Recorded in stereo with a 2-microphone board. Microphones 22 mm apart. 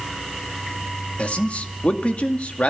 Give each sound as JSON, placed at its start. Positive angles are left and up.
{"t": 1.2, "sound": "a man speaking", "side_deg": 75, "distance_m": 2.0}